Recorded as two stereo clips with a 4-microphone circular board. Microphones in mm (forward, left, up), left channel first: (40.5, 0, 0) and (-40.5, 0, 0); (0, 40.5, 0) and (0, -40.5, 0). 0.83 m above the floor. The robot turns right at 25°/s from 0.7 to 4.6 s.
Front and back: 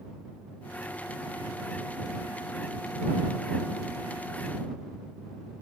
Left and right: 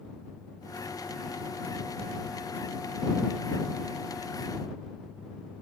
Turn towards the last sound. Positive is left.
No sound to turn to.